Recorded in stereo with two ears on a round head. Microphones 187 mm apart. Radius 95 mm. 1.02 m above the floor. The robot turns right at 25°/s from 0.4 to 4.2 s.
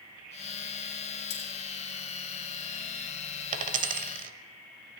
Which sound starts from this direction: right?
A dropped coin, at 3.5 s.